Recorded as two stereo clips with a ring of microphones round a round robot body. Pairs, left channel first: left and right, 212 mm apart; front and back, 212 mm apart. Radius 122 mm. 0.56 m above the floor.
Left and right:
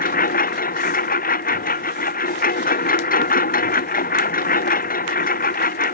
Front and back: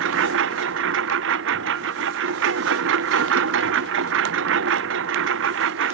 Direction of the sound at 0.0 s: 140° left.